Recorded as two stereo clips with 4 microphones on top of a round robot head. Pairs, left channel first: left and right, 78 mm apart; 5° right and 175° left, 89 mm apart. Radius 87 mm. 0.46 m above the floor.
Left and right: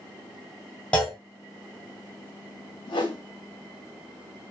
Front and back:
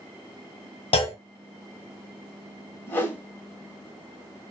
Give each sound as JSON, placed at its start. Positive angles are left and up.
{"t": 0.9, "sound": "a clunk", "azimuth_deg": 10, "distance_m": 0.7}
{"t": 2.9, "sound": "a whoosh", "azimuth_deg": 65, "distance_m": 0.9}